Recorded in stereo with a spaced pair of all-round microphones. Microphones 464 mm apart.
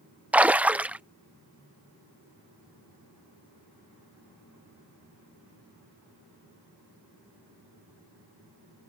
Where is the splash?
5° right (ahead or behind).